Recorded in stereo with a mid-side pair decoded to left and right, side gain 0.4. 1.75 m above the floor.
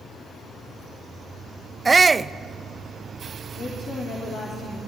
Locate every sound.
1.9 s a shout: 35° right, 0.7 m
3.5 s a woman speaking: 60° left, 4.5 m